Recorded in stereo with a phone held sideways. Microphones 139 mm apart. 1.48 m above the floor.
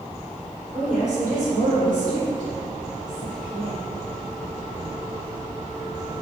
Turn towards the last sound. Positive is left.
turn(degrees=-80)